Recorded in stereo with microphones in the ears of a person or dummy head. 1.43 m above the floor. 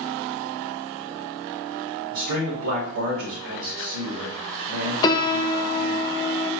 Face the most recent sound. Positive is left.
turn(degrees=25)  # may be behind; listen again after turning